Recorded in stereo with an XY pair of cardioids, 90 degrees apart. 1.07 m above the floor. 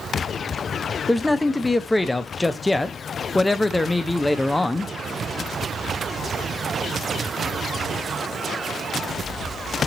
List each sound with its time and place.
1.1 s a man speaking: 15° left, 0.5 m